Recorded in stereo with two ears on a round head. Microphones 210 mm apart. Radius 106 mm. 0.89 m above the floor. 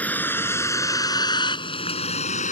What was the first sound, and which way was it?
A vehicle, 5° left (ahead or behind).